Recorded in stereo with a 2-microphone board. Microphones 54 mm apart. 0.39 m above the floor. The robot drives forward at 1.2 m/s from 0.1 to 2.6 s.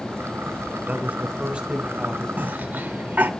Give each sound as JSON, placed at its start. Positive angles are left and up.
{"t": 0.9, "sound": "a man speaking", "side_deg": -30, "distance_m": 1.0}
{"t": 2.4, "sound": "a cough", "side_deg": -30, "distance_m": 1.1}